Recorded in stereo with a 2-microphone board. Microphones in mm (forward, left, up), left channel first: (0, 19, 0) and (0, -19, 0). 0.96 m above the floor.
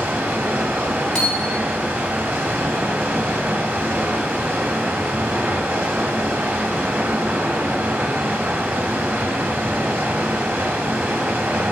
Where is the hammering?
10° left (ahead or behind), 4.5 m.